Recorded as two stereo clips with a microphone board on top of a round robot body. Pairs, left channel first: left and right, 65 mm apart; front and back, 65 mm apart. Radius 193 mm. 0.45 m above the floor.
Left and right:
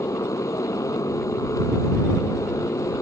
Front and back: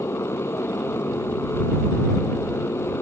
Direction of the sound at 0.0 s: 55° left.